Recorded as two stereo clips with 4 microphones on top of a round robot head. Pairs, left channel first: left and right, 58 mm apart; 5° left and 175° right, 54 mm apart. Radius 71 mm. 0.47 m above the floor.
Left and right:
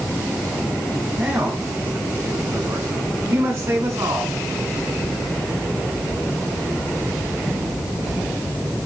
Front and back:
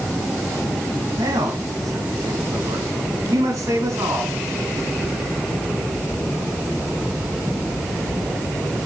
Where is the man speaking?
160° right, 5.5 m; by 4.4 s 135° right, 6 m.